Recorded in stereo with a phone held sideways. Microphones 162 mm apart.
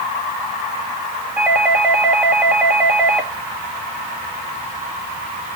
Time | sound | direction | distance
1.4 | a doorbell | 5° right (ahead or behind) | 2.5 m